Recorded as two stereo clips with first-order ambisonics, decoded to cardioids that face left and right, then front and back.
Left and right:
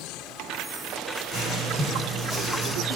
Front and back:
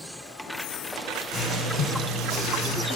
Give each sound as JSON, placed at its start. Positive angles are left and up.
{"t": 1.3, "sound": "writing", "azimuth_deg": -160, "distance_m": 1.6}